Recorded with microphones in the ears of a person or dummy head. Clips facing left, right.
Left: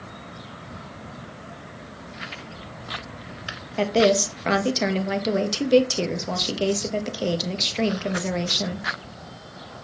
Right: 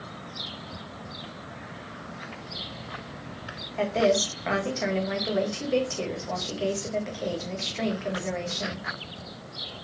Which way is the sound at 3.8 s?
55° left (ahead or behind).